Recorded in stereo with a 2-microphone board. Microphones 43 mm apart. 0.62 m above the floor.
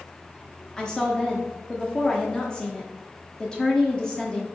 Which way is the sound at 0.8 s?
15° left (ahead or behind).